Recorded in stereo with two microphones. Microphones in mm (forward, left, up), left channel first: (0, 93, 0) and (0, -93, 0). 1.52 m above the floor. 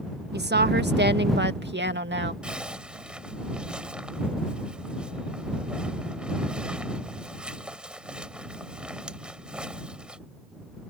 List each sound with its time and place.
0.3 s a woman speaking: 65° right (ahead or behind); by 2.3 s 80° right
2.4 s a zipper: 5° right (ahead or behind)